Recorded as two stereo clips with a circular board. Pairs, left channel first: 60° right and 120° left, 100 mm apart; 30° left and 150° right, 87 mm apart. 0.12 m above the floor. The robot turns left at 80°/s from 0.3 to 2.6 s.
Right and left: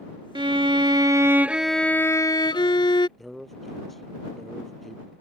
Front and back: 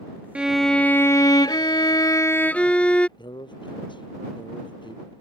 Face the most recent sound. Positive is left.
turn(degrees=30)